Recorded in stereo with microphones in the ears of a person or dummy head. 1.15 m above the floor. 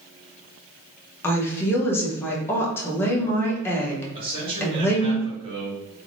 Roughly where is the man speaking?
Right.